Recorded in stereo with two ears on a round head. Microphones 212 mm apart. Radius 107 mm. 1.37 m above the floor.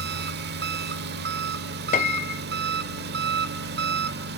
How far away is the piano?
About 0.5 m.